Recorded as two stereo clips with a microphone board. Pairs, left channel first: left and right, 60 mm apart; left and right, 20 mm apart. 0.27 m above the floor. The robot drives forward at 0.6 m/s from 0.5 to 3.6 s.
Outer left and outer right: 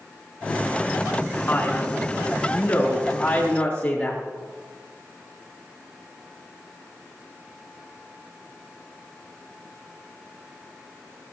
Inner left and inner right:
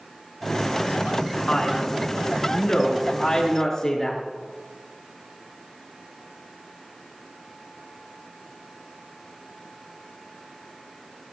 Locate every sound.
1.5 s a man speaking: 30° left (ahead or behind), 3 m; by 4.2 s 20° left (ahead or behind), 4 m